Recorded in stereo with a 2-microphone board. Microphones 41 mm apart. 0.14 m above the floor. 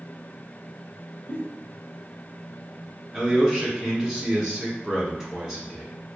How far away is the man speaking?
About 1.1 m.